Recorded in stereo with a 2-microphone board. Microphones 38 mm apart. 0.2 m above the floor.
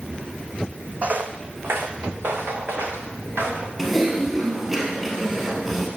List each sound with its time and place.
1.0 s footsteps: 40° right (ahead or behind), 0.7 m; by 3.7 s 75° right (ahead or behind), 2.5 m
3.8 s typing on a keyboard: 10° right (ahead or behind), 2.0 m